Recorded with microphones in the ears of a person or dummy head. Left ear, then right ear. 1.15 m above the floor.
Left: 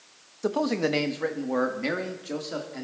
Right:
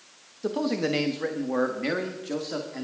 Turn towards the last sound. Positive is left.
turn(degrees=-5)  # may be behind; listen again after turning